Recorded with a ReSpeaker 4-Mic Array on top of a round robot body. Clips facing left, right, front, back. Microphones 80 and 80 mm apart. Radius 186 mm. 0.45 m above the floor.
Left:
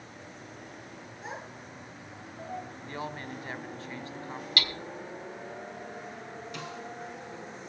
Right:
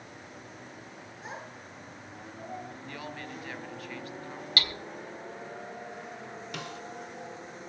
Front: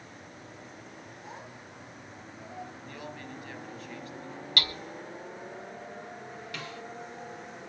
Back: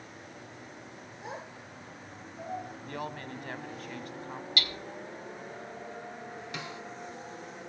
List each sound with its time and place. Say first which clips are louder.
1.2 s a child speaking: left 1 dB, back 6 dB; straight behind, 6 m; by 2.7 s 175° right, 5 m
2.9 s a woman speaking: left 5 dB, back 4 dB; 150° left, 2 m
4.6 s hammering: even, front 3 dB; 35° right, 3.5 m
6.5 s a snare drum: right 1 dB, back 1 dB; 110° right, 3 m